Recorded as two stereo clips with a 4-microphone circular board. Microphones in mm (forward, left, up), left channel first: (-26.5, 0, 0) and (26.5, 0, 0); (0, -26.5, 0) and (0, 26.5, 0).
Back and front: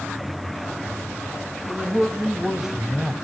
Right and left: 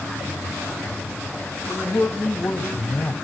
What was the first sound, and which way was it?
A man speaking, 75° right.